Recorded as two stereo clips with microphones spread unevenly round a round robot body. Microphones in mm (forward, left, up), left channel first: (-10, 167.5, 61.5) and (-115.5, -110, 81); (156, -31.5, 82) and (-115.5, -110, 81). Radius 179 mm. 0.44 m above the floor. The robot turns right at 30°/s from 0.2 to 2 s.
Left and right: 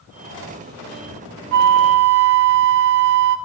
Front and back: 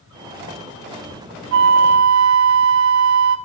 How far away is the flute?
About 0.7 m.